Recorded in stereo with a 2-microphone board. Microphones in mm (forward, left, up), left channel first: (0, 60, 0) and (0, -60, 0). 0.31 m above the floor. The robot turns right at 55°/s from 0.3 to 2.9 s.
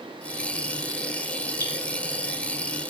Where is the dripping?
30° right (ahead or behind), 5 m; by 1.7 s 40° right (ahead or behind), 5 m.